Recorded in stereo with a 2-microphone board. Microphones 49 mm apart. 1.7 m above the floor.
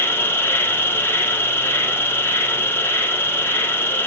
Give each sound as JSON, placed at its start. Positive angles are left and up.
{"t": 0.0, "sound": "an insect", "side_deg": 50, "distance_m": 0.7}